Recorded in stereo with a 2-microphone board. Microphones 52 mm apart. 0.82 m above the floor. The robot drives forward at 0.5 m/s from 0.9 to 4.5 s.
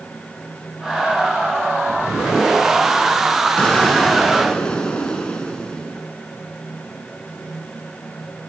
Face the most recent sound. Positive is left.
turn(degrees=15)  # may be behind; listen again after turning